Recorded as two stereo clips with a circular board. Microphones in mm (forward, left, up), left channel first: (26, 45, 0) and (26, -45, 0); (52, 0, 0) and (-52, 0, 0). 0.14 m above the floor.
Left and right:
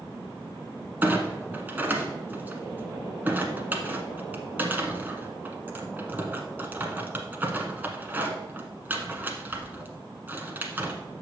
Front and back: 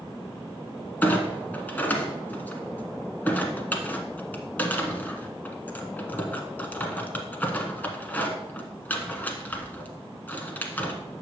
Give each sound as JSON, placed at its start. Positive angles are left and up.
{"t": 1.0, "sound": "a clunk", "azimuth_deg": -50, "distance_m": 1.3}